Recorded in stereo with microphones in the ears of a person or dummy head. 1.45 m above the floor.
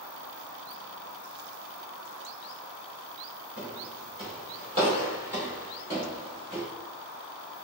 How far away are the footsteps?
About 1.7 m.